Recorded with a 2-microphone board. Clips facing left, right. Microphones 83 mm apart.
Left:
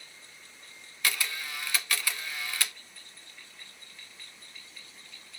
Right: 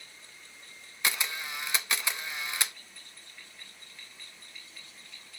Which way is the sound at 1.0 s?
20° right (ahead or behind).